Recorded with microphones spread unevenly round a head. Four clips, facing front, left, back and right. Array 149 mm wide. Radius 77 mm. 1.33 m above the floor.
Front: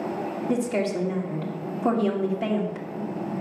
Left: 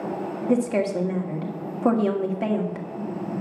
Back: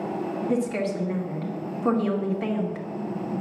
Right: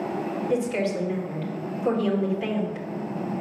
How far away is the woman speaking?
About 2.0 m.